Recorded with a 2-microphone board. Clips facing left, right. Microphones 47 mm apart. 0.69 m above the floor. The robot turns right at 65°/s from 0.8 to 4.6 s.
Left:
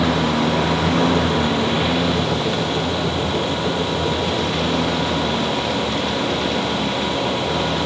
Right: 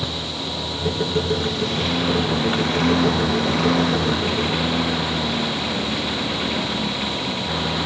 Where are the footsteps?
No footsteps in this recording.